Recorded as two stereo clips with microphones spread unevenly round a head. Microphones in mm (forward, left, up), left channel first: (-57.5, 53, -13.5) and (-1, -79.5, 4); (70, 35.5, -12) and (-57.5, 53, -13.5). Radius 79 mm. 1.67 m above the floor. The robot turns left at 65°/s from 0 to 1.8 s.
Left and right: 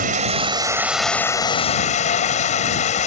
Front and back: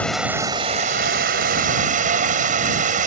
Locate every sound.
0.0 s running water: 90° right; by 3.1 s 155° left